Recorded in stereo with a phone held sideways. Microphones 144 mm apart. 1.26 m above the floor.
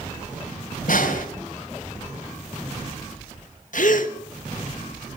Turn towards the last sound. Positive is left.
turn(degrees=65)  # may be behind; listen again after turning